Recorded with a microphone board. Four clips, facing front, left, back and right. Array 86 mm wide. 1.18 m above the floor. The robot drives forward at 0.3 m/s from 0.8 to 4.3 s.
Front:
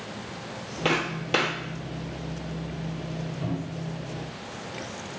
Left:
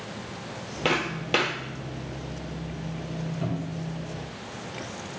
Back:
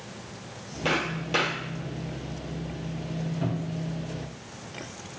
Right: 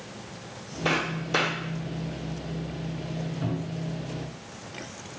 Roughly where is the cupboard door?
Behind left.